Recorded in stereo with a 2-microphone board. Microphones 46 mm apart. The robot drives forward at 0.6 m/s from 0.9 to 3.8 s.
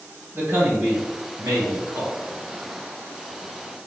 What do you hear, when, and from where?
0.3 s a man speaking: 65° right (ahead or behind), 2.0 m; by 2.1 s 75° right (ahead or behind), 1.8 m